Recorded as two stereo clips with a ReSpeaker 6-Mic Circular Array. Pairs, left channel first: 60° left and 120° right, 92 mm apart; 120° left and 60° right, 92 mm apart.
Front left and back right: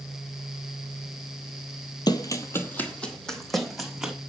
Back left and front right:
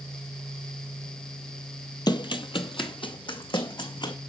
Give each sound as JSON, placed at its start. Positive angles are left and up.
{"t": 2.1, "sound": "running footsteps", "azimuth_deg": 90, "distance_m": 1.1}